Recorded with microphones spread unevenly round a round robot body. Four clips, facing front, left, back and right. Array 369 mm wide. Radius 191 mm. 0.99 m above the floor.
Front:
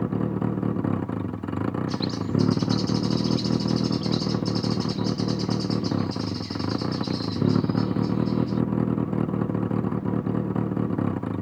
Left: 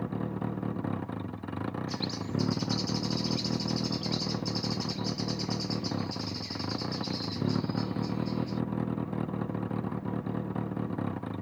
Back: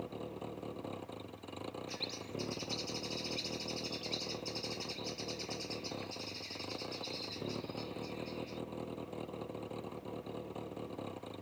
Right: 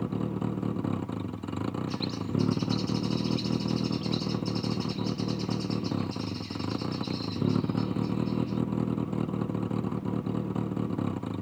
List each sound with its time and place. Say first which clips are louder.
0.0 s a vehicle: right 3 dB, front 17 dB; 5° right
1.9 s a bird: right 2 dB, front 17 dB; 65° left